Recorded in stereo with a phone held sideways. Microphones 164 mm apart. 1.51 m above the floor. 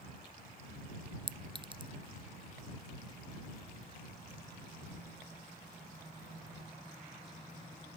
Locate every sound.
1.3 s a clink: 30° right (ahead or behind)